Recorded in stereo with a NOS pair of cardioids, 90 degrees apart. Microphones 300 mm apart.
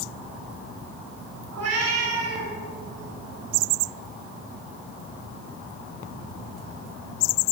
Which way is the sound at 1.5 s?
55° right.